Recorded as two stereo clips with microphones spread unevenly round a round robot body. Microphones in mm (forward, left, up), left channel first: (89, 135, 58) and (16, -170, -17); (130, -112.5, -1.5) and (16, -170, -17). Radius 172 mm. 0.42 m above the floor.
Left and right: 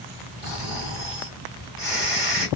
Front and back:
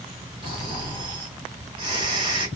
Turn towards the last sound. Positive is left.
turn(degrees=-175)